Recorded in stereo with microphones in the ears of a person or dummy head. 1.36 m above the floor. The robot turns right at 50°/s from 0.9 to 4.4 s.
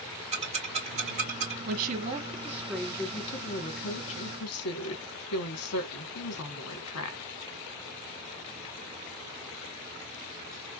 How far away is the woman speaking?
About 1.4 m.